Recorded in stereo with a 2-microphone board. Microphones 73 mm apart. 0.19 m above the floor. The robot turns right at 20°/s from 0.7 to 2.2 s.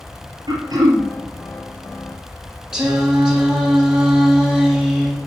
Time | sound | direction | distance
0.5 | throat clearing | 65° right (ahead or behind) | 3.5 m
2.7 | singing | 10° right (ahead or behind) | 4 m